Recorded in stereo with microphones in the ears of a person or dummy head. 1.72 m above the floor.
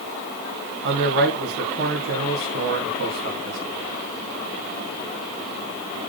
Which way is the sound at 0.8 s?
60° right (ahead or behind).